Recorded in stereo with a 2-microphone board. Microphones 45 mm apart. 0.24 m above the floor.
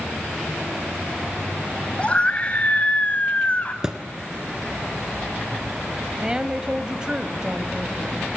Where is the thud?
15° right (ahead or behind), 1.7 m.